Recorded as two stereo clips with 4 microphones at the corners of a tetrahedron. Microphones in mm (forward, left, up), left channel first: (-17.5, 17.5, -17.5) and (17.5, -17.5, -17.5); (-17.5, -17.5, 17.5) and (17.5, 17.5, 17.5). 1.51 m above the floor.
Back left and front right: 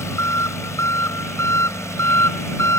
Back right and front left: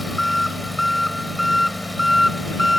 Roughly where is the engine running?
Behind left.